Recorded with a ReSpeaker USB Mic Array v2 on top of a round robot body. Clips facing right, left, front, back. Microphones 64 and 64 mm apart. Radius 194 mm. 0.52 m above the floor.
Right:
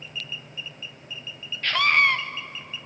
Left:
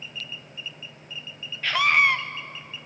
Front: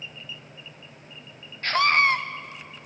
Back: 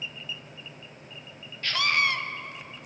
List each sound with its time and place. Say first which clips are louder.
1.6 s a scream: even, front 5 dB; 10° left, 0.7 m